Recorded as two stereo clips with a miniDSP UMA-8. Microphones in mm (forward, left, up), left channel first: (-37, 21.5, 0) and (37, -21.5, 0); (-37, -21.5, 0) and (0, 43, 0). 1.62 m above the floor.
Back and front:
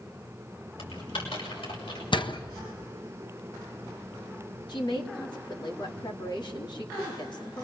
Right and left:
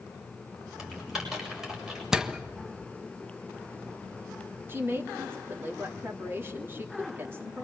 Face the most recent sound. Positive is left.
turn(degrees=120)